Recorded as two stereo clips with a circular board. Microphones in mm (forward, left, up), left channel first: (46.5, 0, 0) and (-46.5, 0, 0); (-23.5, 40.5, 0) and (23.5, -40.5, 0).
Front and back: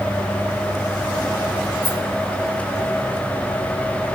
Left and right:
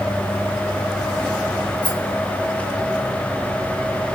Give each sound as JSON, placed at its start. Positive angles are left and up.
{"t": 1.8, "sound": "a rattle", "azimuth_deg": 45, "distance_m": 3.5}